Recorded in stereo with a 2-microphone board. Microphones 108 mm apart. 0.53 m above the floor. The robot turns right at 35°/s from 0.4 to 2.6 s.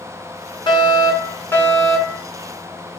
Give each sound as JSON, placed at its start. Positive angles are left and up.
{"t": 0.7, "sound": "a fire alarm", "azimuth_deg": 135, "distance_m": 9.0}